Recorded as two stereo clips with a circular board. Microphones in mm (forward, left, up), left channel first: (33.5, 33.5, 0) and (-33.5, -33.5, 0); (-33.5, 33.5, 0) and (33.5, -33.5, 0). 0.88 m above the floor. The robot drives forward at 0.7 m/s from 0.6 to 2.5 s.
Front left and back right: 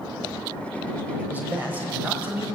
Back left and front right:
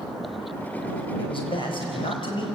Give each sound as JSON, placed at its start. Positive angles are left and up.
{"t": 1.2, "sound": "a man speaking", "azimuth_deg": 155, "distance_m": 5.0}